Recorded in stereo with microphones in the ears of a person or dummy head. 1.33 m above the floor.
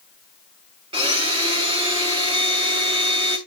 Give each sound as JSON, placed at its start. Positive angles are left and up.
{"t": 0.9, "sound": "a blender", "side_deg": -15, "distance_m": 0.9}